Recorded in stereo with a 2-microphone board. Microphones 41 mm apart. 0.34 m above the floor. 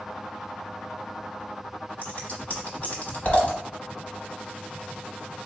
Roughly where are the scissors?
Left.